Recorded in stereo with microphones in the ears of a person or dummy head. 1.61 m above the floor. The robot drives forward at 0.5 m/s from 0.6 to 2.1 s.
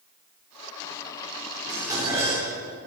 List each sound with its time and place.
1.7 s dishes clattering: 15° right (ahead or behind), 3.5 m